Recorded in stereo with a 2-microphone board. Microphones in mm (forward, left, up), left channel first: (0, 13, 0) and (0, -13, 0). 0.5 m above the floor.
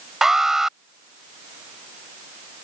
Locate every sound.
0.2 s an alarm: 15° right (ahead or behind)